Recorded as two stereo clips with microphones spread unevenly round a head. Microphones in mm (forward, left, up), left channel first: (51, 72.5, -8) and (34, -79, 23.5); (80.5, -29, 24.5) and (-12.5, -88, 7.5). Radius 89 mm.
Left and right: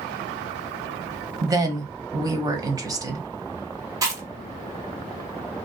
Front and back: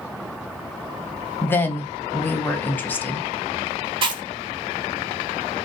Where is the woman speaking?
35° right, 0.8 m.